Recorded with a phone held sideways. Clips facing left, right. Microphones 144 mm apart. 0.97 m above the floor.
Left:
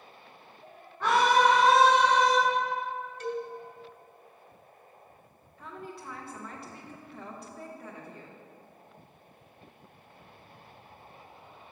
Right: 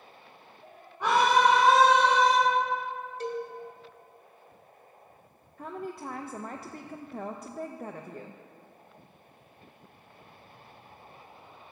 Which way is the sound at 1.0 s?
15° right (ahead or behind).